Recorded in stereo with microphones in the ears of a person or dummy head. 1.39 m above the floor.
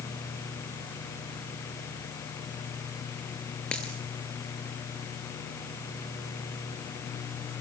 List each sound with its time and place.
3.7 s a dropped coin: 5° left (ahead or behind), 3.5 m